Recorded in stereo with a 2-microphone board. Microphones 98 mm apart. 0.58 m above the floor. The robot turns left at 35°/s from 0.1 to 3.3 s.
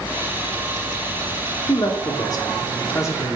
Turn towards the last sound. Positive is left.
turn(degrees=40)